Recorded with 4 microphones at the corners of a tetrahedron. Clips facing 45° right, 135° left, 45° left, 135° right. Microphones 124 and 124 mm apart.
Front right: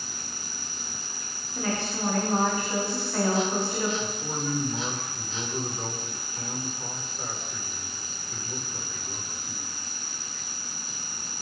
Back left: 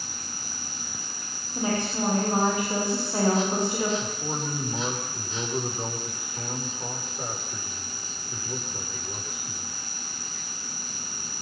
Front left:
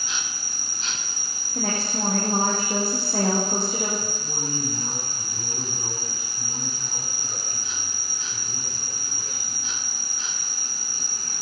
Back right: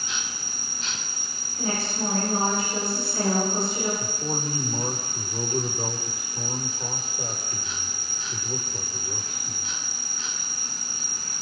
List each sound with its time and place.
0.0 s an insect: 145° right, 2.5 m
1.6 s a woman speaking: 65° left, 10 m
4.0 s a man speaking: 155° right, 9 m